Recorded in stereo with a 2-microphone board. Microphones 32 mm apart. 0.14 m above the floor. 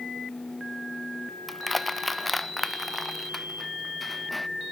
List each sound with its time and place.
1.5 s crushing: centre (ahead or behind)